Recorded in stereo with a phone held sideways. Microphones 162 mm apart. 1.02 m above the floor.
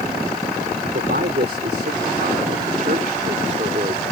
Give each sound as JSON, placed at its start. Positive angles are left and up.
{"t": 0.9, "sound": "a man speaking", "side_deg": -80}